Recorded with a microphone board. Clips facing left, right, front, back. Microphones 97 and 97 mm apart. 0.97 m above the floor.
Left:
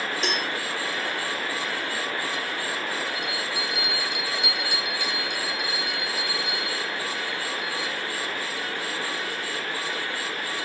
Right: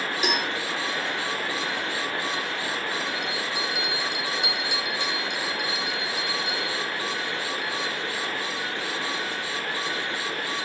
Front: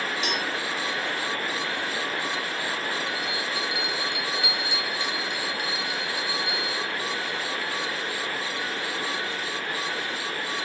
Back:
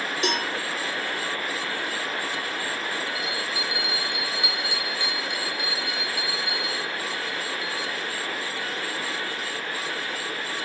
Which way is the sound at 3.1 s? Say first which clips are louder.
Right 1 dB, even; 110° right.